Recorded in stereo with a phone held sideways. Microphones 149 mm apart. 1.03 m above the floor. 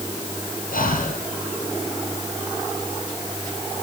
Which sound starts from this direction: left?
Breathing, at 0.7 s.